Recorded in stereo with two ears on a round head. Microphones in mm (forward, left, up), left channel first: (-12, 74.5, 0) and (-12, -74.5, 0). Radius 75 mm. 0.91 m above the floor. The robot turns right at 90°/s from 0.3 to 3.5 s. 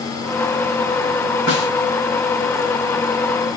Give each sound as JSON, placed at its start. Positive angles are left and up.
{"t": 1.5, "sound": "a snare drum", "side_deg": 70, "distance_m": 4.5}